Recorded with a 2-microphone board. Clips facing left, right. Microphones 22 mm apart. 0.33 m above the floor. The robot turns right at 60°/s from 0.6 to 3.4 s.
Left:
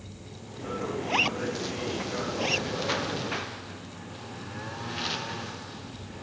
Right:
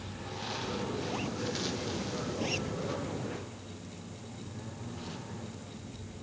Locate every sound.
0.0 s a lawn mower: 70° right; by 6.2 s 100° left
1.0 s a zipper: 60° left (ahead or behind); by 2.7 s 20° left (ahead or behind)